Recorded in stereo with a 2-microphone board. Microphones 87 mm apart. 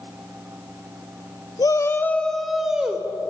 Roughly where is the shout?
Left.